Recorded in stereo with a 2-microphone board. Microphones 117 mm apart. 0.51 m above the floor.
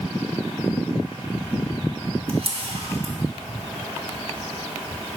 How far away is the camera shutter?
About 1.1 m.